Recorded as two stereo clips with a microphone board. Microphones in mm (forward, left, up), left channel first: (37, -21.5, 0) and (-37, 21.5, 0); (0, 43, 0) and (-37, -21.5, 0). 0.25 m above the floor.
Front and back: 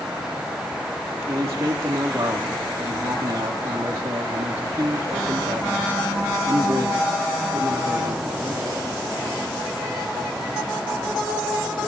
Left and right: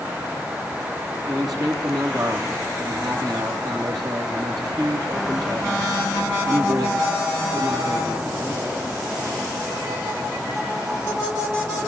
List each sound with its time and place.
1.3 s a man speaking: 150° right, 6.5 m